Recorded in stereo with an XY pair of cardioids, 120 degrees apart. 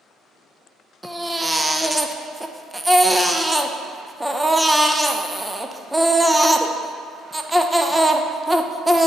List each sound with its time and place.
1.0 s a baby crying: 10° right, 0.6 m